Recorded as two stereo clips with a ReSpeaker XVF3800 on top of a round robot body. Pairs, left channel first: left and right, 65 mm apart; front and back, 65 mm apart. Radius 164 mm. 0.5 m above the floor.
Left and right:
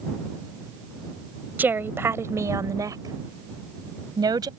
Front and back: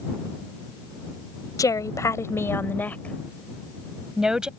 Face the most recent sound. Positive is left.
turn(degrees=-100)